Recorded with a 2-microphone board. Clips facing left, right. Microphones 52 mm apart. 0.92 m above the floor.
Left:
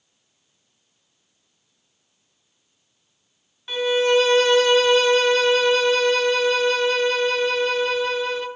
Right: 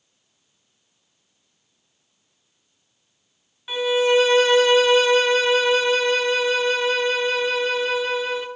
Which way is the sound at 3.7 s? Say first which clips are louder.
Even; 5° right (ahead or behind).